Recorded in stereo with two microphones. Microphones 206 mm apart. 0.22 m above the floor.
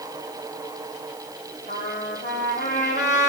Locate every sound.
1.7 s a trumpet: 35° left (ahead or behind), 2.0 m